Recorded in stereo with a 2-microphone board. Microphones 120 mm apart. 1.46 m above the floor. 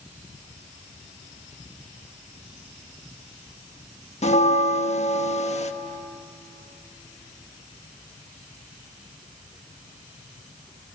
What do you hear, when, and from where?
4.2 s a bell: 60° left (ahead or behind), 1.3 m